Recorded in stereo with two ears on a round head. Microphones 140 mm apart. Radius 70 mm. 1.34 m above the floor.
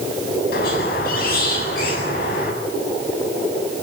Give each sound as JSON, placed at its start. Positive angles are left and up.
{"t": 0.5, "sound": "a squeak", "side_deg": 60, "distance_m": 8.0}